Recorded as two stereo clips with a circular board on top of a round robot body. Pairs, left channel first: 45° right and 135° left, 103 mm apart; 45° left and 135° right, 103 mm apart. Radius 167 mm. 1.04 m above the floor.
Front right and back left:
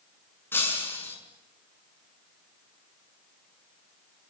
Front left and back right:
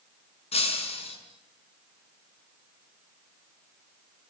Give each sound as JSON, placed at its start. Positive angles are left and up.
{"t": 0.5, "sound": "breaking glass", "azimuth_deg": 25, "distance_m": 5.5}